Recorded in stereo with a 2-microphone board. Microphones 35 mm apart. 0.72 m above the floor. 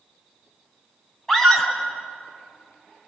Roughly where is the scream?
Centre.